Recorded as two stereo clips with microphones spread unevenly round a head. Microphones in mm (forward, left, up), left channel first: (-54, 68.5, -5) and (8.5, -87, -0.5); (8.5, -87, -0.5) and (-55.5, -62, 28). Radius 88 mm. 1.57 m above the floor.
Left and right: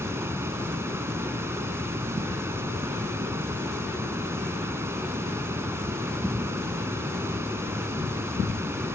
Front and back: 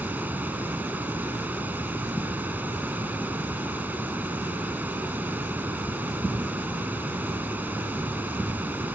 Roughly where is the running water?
Behind right.